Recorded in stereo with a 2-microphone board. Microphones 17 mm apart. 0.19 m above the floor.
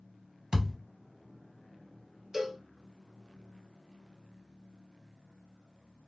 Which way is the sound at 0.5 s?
45° right (ahead or behind).